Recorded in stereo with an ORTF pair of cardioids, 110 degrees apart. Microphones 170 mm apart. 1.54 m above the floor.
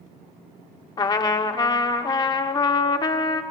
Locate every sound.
1.0 s a trumpet: 25° left, 0.9 m